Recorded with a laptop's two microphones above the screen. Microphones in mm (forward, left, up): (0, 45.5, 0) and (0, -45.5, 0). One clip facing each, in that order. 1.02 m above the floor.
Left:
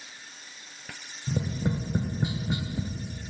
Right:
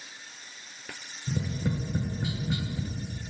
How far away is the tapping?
About 0.5 m.